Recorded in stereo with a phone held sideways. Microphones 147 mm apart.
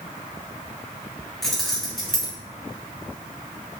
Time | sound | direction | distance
1.4 | keys jangling | centre (ahead or behind) | 3.5 m